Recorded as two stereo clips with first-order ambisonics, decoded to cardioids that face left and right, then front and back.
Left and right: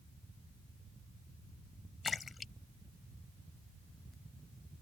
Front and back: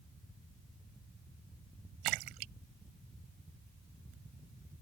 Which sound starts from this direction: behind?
A splash, at 2.0 s.